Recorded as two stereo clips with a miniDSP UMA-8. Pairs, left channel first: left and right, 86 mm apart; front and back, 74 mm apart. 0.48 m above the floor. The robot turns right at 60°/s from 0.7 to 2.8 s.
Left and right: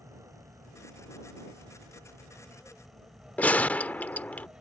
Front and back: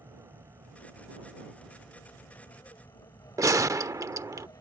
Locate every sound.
0.0 s an aircraft: 140° right; by 4.6 s 15° right
3.4 s a gunshot: 155° left